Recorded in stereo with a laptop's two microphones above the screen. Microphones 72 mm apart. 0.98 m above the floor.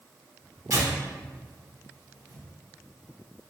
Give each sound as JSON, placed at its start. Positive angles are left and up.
{"t": 0.7, "sound": "tearing paper", "side_deg": -45, "distance_m": 0.8}